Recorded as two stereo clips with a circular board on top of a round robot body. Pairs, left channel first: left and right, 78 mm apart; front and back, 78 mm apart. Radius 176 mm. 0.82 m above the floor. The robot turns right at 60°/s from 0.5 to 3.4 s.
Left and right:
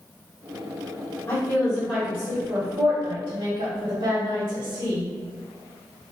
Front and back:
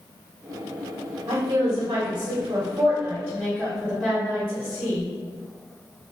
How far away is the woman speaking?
About 1.5 m.